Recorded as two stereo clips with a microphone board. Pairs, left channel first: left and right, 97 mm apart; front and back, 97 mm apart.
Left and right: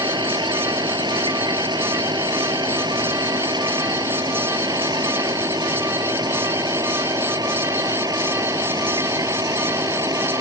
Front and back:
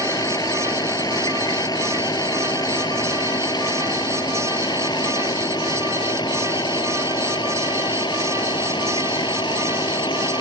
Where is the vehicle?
50° right; by 10.4 s 40° right.